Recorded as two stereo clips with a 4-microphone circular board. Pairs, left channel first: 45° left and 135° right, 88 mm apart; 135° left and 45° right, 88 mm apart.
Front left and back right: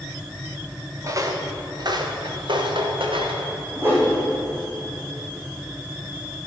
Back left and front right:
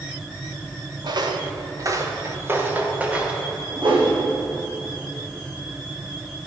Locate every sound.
1.0 s footsteps: 80° right, 2 m; by 3.4 s 125° right, 3 m
3.8 s a whoosh: 70° right, 5 m